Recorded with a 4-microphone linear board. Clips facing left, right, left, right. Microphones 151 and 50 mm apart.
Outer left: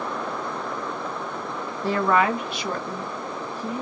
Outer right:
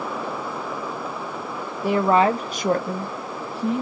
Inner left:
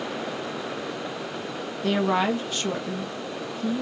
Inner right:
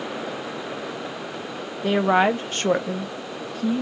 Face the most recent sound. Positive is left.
turn(degrees=-70)  # may be behind; listen again after turning